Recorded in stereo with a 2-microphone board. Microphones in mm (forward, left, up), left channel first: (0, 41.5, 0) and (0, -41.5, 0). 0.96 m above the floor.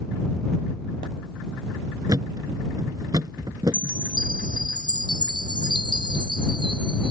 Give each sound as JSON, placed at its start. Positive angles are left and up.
{"t": 2.1, "sound": "a thud", "side_deg": -50}
{"t": 3.7, "sound": "a chime", "side_deg": -70}